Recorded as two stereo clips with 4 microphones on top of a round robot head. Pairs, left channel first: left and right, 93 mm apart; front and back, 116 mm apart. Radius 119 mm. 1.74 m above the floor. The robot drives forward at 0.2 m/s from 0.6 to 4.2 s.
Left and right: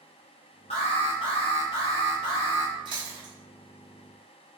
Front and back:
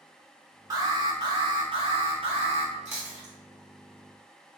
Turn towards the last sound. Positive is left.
turn(degrees=-150)